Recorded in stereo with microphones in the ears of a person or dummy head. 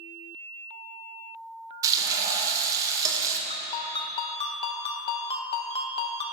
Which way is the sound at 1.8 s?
15° right (ahead or behind).